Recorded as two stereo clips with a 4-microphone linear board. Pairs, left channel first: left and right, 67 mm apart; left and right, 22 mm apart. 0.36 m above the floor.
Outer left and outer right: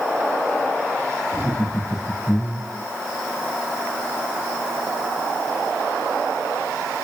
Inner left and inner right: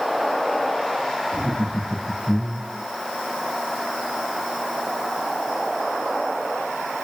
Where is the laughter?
10° left (ahead or behind), 4.5 m; by 2.9 s 20° left (ahead or behind), 3.5 m.